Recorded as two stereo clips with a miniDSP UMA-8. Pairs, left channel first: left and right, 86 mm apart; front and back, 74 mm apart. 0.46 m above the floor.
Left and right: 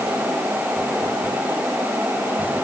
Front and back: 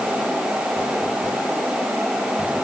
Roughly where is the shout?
I don't hear a shout.